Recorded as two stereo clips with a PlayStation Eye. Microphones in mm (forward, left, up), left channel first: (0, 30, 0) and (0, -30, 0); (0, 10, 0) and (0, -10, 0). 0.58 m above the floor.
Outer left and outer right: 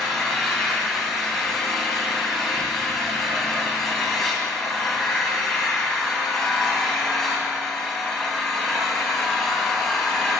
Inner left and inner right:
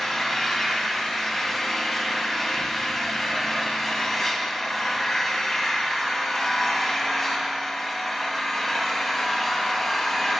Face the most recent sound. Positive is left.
turn(degrees=0)  # may be behind; listen again after turning